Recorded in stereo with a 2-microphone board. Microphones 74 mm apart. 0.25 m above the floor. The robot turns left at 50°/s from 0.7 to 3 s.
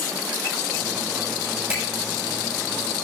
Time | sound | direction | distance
1.7 | a finger snap | 30° right (ahead or behind) | 7.5 m